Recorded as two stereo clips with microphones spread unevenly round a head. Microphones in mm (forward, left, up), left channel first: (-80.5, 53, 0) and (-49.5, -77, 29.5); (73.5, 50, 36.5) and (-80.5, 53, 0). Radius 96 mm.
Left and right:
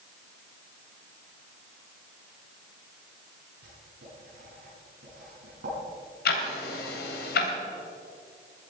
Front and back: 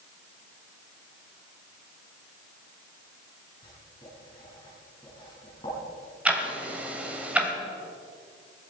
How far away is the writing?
About 7 m.